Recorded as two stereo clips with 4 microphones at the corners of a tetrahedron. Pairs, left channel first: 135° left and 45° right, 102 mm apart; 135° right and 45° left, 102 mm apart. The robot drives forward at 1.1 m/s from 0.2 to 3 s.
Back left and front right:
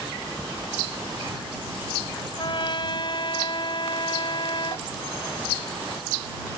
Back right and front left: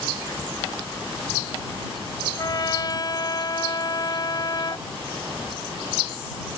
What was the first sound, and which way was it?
A trumpet, 175° left.